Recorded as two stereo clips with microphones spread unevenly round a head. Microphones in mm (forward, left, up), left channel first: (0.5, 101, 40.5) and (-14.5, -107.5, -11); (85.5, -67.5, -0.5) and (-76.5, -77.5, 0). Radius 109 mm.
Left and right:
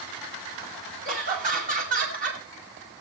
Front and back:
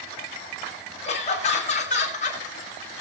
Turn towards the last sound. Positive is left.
turn(degrees=-40)